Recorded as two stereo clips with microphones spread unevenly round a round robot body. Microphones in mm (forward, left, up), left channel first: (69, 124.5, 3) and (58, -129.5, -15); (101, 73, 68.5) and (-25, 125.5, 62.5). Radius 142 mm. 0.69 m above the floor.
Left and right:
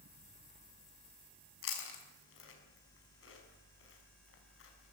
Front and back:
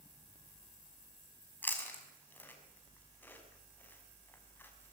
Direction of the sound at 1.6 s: 55° left.